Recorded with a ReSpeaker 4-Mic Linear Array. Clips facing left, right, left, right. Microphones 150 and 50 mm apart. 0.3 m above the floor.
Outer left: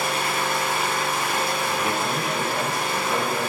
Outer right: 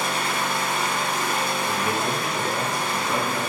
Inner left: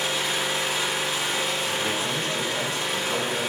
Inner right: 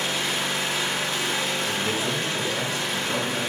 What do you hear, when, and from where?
0.0 s an engine running: 5° left (ahead or behind), 0.9 m
1.6 s a man speaking: 5° left (ahead or behind), 1.7 m